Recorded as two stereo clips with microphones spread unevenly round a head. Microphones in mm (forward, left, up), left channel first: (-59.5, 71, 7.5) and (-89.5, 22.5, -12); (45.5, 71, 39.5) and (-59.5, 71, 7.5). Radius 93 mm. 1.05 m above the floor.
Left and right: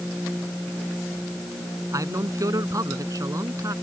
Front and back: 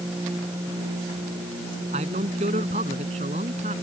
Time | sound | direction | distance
1.9 | a man speaking | 145° right | ?